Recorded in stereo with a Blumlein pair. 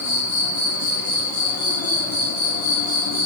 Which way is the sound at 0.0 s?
55° left.